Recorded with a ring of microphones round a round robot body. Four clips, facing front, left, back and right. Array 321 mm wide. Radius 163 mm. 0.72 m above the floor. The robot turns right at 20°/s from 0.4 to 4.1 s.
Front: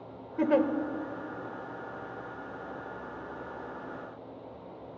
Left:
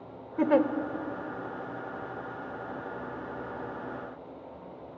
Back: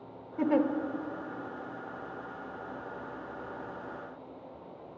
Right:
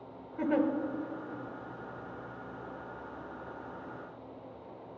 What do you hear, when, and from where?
0.4 s a giggle: 75° left, 0.7 m; by 0.7 s 80° left, 0.7 m